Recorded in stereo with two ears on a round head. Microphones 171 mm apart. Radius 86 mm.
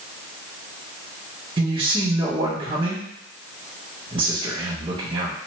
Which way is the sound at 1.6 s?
30° right (ahead or behind).